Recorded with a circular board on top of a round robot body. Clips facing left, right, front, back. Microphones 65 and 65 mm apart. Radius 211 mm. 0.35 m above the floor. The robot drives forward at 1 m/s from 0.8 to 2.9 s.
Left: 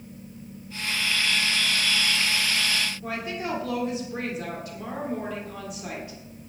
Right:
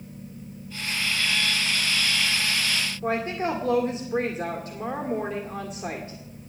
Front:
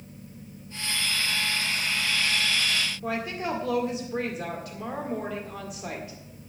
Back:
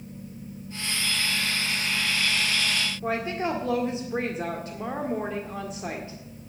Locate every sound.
3.0 s a woman speaking: 135° right, 2.0 m